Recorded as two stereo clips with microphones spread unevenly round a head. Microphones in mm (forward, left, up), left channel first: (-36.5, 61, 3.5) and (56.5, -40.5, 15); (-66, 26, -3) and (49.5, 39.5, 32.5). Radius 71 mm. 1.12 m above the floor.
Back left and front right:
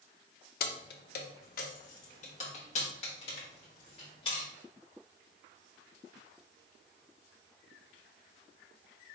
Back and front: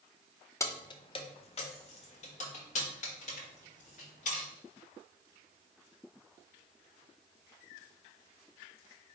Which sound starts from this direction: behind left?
Keys jangling, at 0.6 s.